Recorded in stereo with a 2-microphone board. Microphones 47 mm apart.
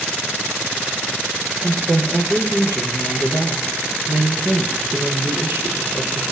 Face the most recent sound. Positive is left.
turn(degrees=-55)  # may be behind; listen again after turning